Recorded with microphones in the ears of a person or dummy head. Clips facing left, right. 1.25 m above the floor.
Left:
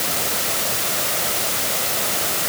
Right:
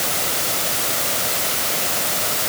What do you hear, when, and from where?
Only background noise.